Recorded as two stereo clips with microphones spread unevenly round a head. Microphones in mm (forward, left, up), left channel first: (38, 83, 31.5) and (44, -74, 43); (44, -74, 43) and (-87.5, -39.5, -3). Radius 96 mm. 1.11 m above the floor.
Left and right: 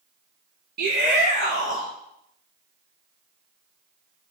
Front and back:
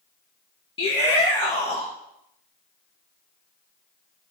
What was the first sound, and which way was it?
A shout, 75° right.